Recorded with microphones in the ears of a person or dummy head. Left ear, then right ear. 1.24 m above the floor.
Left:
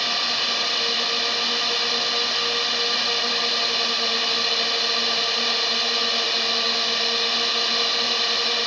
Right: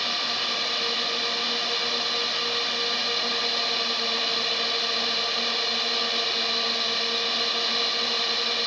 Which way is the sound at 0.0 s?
10° left (ahead or behind).